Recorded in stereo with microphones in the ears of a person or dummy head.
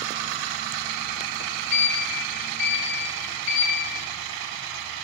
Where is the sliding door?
70° left (ahead or behind), 1.2 m.